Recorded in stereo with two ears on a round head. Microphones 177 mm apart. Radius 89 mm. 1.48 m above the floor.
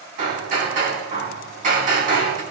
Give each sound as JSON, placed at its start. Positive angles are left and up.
{"t": 0.2, "sound": "hammering", "side_deg": -45, "distance_m": 5.5}